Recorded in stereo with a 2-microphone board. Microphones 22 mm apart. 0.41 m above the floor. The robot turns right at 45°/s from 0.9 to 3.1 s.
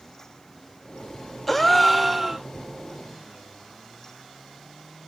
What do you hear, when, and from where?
1.5 s a gasp: 165° left, 0.6 m; by 2.5 s 150° right, 0.6 m